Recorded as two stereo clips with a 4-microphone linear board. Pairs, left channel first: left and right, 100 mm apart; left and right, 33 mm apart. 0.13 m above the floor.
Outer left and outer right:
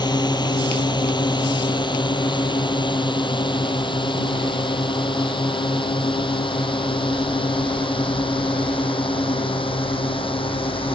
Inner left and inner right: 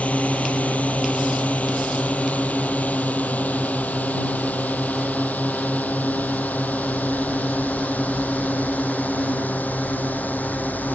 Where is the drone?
45° left (ahead or behind); by 10.9 s 65° left (ahead or behind).